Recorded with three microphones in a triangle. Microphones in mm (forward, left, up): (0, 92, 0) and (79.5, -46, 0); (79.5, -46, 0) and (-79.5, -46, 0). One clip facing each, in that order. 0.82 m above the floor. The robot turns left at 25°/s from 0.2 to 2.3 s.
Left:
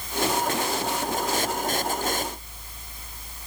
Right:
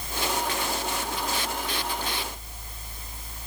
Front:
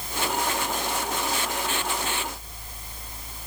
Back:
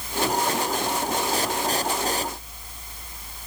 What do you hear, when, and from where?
Only background noise.